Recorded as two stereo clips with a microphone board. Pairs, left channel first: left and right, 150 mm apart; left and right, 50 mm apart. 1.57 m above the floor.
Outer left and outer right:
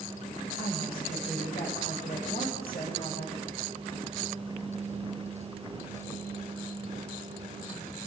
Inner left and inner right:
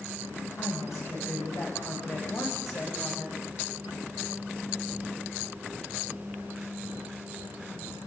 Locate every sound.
0.6 s a woman speaking: 90° left, 9.5 m; by 3.4 s 80° left, 8 m